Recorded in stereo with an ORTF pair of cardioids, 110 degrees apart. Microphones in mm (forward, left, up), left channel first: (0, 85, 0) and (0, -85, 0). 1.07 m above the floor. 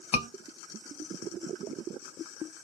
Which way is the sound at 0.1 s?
45° left.